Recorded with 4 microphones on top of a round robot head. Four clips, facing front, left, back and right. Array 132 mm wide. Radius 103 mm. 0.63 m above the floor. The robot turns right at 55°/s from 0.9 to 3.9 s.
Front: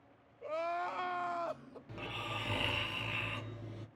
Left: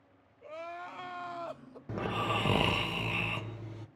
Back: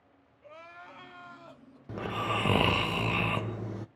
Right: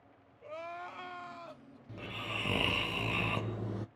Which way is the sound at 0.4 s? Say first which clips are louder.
Left 1 dB, front 12 dB; 5° left.